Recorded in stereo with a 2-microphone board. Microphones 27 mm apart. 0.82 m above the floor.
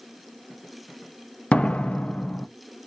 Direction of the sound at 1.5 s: 60° left (ahead or behind).